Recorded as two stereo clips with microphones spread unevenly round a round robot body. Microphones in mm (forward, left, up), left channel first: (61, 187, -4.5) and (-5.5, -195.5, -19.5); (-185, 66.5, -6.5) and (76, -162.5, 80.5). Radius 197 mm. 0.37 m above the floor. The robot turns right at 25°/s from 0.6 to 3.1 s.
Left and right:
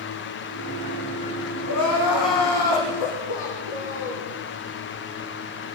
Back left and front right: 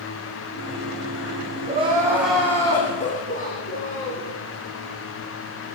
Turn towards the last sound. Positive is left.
turn(degrees=65)